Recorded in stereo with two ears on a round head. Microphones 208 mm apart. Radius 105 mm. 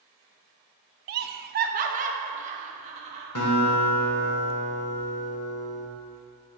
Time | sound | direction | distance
1.1 | laughter | 45° right (ahead or behind) | 0.6 m
3.4 | a guitar | 70° left (ahead or behind) | 1.9 m